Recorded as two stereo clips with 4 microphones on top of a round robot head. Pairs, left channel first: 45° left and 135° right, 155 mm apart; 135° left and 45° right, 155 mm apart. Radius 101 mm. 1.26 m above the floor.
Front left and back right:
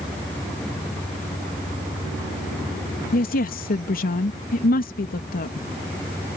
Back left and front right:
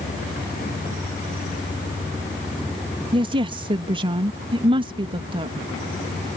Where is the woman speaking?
15° left.